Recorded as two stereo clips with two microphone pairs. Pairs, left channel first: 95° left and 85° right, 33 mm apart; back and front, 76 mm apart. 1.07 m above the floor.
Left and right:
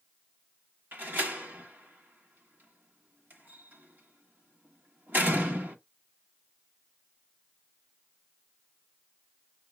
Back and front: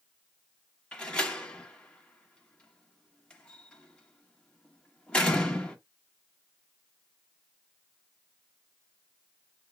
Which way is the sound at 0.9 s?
105° right.